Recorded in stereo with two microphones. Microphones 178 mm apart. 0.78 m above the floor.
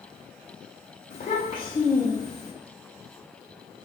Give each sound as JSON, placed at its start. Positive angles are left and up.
{"t": 1.1, "sound": "a child speaking", "side_deg": 45, "distance_m": 0.6}